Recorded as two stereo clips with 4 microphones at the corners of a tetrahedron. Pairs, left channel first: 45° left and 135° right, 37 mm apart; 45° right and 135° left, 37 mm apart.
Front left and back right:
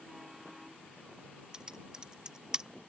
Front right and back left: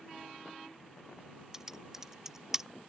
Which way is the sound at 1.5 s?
165° right.